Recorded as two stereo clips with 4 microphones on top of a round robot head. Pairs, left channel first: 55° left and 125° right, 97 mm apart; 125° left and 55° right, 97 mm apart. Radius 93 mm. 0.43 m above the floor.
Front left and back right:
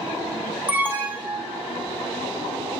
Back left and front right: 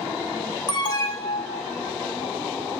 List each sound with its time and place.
0.7 s an alarm: 165° left, 6.5 m